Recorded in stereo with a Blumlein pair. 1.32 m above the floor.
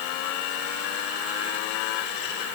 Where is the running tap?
I don't hear a running tap.